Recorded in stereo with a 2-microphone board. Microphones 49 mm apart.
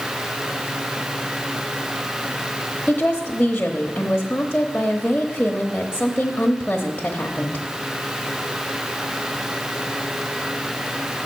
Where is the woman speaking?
25° left (ahead or behind), 1.0 m.